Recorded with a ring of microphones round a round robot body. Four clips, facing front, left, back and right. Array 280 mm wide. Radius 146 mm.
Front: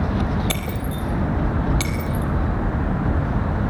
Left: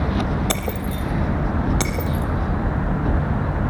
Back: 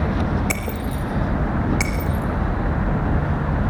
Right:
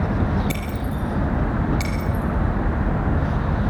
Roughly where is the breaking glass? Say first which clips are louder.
Left 2 dB, back 1 dB; left.